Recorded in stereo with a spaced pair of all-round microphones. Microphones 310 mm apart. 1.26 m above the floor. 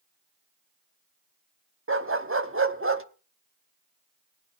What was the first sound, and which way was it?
A dog barking, 40° right (ahead or behind).